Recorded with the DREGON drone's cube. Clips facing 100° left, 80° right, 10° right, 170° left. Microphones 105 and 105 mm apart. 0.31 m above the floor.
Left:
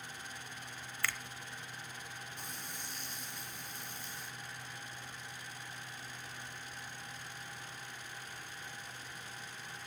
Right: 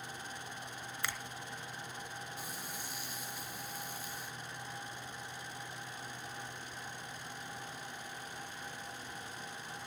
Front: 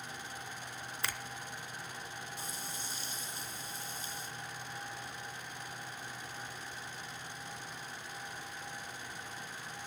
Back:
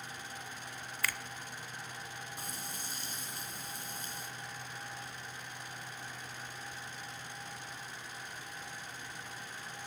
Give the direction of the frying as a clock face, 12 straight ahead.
5 o'clock.